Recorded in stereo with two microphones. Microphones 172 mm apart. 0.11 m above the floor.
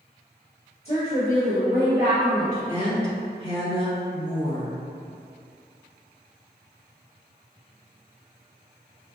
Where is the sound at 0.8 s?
35° left (ahead or behind), 1.9 m; by 2.6 s 40° left (ahead or behind), 3 m.